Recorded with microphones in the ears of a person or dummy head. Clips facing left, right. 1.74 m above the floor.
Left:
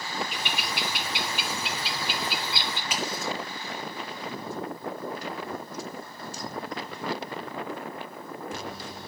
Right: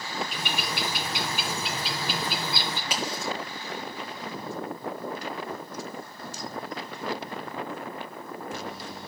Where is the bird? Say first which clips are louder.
Right 1 dB; 35° right (ahead or behind), 2.5 m.